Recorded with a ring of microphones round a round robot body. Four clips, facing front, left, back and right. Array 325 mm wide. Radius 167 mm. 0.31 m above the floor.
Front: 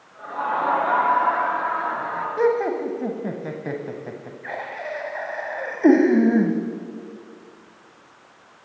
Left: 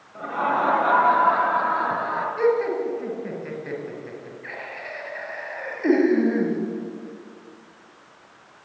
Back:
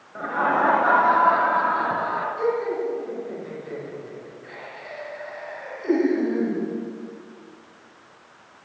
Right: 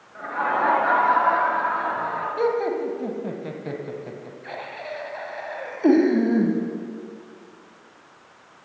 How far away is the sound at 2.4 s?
About 2.5 m.